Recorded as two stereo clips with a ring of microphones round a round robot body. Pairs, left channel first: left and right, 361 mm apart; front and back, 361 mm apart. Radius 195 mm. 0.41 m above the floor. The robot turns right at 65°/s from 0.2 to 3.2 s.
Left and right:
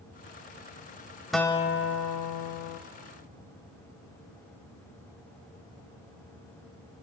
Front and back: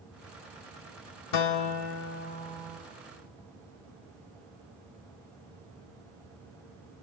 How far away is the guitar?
About 0.7 m.